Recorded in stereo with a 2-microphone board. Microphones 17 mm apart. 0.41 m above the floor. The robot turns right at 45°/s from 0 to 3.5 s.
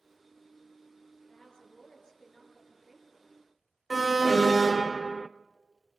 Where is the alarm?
5° right (ahead or behind), 0.6 m.